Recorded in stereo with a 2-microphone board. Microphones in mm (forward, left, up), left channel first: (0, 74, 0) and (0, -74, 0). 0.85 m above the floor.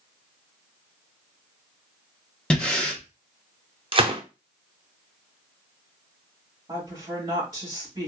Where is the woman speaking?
30° right (ahead or behind), 2 m.